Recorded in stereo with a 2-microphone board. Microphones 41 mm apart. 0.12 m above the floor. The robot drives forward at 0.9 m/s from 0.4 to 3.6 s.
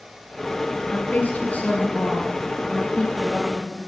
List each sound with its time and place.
0.9 s a woman speaking: 45° left (ahead or behind), 2.5 m; by 3.8 s 25° left (ahead or behind), 3.5 m